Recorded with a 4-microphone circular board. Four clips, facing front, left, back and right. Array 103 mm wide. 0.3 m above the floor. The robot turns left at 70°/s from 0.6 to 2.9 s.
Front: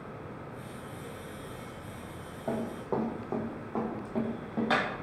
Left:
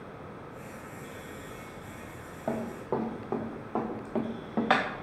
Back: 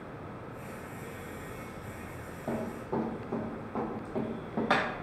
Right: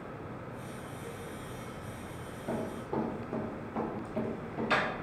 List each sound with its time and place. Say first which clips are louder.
2.5 s running footsteps: left 4 dB, front 2 dB; 80° left, 1.7 m; by 4.8 s 105° left, 1.4 m